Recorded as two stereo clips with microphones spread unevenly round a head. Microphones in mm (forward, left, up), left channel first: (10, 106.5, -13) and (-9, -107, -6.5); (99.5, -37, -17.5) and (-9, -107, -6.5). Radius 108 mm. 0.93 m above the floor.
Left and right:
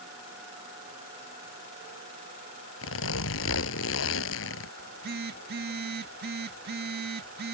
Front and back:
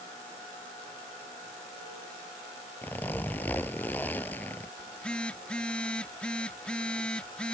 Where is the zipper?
115° left.